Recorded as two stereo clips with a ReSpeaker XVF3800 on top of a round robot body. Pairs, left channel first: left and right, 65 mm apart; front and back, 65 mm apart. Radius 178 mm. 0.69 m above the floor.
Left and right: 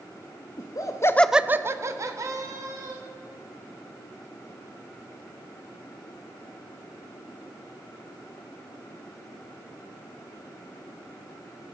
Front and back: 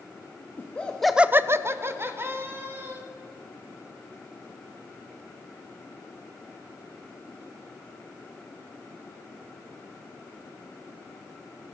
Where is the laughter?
70° left, 1.1 m; by 3.0 s 125° right, 2.5 m.